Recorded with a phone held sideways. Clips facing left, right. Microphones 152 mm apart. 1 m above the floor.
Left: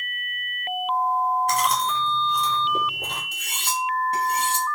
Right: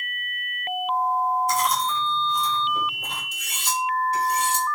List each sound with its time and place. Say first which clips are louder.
1.5 s chewing: left 1 dB; 70° left (ahead or behind), 5 m
3.3 s cutlery clinking: right 2 dB; 60° left (ahead or behind), 4.5 m